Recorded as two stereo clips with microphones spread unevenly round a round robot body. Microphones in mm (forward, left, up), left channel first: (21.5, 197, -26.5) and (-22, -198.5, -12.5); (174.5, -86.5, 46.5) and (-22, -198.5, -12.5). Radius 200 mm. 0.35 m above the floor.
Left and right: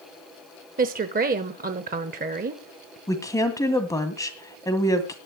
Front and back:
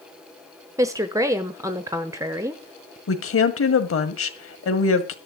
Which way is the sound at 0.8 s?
145° right.